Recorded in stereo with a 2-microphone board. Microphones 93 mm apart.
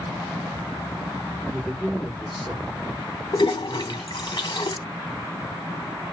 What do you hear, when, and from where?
1.4 s a man speaking: centre (ahead or behind), 1.4 m
3.3 s a toilet flushing: 55° left (ahead or behind), 0.8 m